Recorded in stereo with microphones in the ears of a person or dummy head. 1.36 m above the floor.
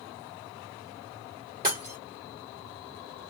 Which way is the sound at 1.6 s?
25° right (ahead or behind).